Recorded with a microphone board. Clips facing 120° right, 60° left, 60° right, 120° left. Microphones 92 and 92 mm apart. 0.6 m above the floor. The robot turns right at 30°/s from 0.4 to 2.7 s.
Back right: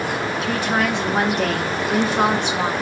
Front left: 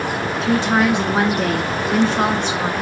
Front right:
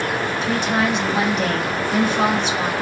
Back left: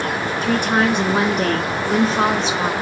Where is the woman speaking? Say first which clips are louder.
Front left 6 dB, back left 4 dB; 110° left, 1.7 m; by 2.7 s straight behind, 1.7 m.